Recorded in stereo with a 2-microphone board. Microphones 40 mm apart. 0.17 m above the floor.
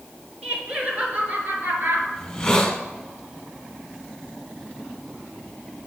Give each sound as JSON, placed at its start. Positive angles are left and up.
{"t": 0.4, "sound": "laughter", "side_deg": -25, "distance_m": 2.5}
{"t": 2.2, "sound": "a hiss", "side_deg": 15, "distance_m": 1.5}